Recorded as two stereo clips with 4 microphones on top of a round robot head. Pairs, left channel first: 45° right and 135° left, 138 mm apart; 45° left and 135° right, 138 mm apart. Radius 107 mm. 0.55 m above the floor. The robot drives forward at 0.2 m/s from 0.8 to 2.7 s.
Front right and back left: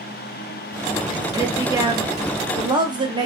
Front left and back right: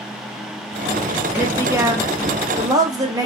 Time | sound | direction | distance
1.3 | a woman speaking | 170° left | 0.9 m